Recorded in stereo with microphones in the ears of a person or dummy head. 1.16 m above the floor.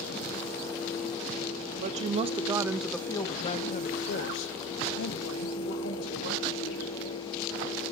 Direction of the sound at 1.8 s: 40° right (ahead or behind).